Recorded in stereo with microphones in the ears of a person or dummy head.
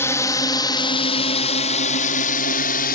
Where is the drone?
10° left (ahead or behind); by 3.0 s 45° left (ahead or behind).